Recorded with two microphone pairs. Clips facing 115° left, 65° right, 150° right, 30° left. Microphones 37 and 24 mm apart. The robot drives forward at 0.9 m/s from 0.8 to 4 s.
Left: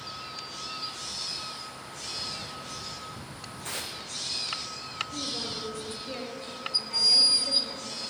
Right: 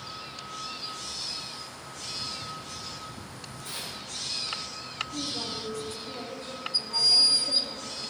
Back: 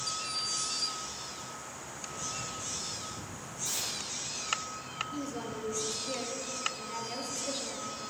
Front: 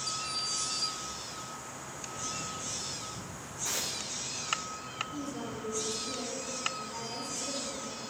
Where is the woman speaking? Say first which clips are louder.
Even, back 1 dB; 170° left, 4.5 m.